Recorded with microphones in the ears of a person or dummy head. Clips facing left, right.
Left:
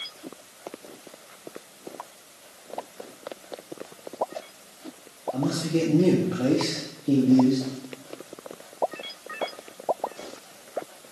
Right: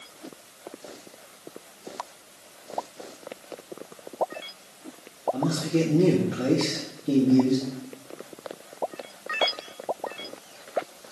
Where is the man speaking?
5° right (ahead or behind), 2 m.